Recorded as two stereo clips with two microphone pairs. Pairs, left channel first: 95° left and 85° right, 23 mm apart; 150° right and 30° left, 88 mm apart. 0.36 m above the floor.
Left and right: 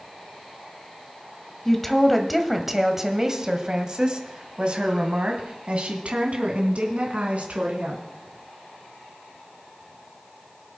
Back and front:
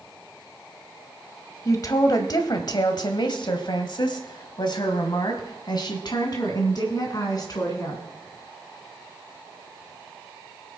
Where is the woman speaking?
170° left, 1.5 m; by 8.0 s 105° right, 3 m.